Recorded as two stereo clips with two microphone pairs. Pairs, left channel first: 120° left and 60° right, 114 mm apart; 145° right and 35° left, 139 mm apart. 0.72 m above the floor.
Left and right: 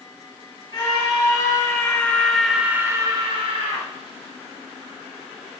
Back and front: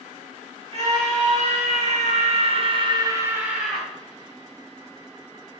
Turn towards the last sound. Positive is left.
turn(degrees=-60)